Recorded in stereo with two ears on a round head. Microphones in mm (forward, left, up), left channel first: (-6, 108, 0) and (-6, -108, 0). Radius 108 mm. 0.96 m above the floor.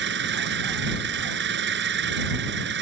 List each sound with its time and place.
0.0 s an engine running: 50° right (ahead or behind)